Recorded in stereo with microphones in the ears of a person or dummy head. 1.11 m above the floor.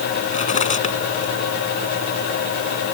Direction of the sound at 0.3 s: 40° left (ahead or behind).